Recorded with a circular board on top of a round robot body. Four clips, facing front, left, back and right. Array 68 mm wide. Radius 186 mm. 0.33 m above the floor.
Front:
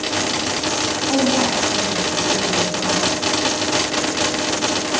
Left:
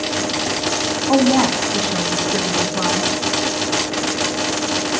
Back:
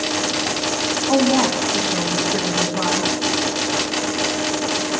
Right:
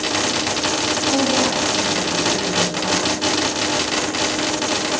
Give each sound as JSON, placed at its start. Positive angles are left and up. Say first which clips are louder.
{"t": 1.1, "sound": "a woman speaking", "louder": "left 6 dB, back 2 dB", "azimuth_deg": 115, "distance_m": 5.0}